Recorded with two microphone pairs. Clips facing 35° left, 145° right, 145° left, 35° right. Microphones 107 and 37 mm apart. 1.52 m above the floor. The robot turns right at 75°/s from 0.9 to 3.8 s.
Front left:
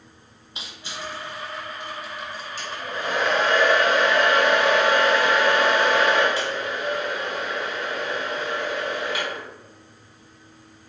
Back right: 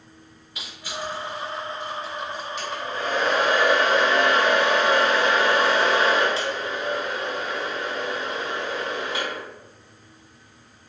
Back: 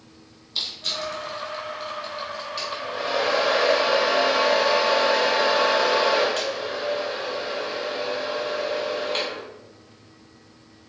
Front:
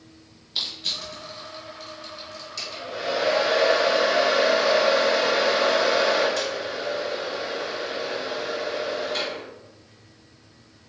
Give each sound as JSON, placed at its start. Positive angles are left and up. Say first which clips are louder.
{"t": 0.6, "sound": "crushing", "louder": "back right 3 dB, back 1 dB", "azimuth_deg": 10, "distance_m": 1.4}
{"t": 2.6, "sound": "a hair dryer", "louder": "back right 1 dB, back 2 dB", "azimuth_deg": 75, "distance_m": 1.9}